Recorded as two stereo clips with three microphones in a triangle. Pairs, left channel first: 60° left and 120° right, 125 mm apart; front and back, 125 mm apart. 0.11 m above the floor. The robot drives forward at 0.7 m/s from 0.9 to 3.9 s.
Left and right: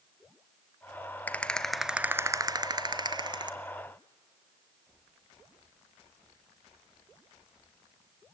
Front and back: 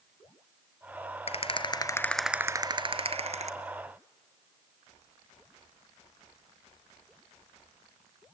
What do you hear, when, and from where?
1.3 s a rattle: 15° right, 0.8 m; by 3.5 s 170° right, 1.0 m